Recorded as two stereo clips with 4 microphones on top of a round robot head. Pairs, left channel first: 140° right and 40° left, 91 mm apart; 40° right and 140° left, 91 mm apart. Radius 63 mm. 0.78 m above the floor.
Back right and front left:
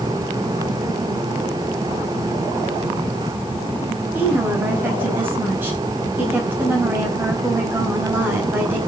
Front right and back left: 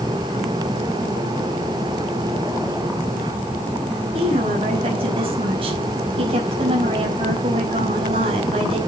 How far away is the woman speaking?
About 5 m.